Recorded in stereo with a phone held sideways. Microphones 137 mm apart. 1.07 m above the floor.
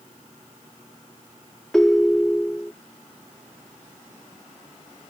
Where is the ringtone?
5° left (ahead or behind).